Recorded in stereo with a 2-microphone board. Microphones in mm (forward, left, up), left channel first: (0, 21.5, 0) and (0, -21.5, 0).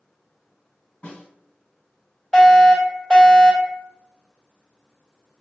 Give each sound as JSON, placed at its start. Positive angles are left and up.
{"t": 1.0, "sound": "a snare drum", "side_deg": 25, "distance_m": 1.5}
{"t": 2.3, "sound": "a fire alarm", "side_deg": 15, "distance_m": 1.9}